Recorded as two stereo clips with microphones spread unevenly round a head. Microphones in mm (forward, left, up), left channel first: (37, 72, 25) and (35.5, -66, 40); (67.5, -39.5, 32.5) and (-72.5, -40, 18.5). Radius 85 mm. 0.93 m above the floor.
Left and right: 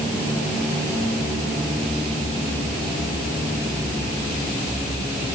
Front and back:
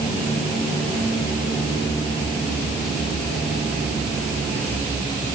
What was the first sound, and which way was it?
Only background noise.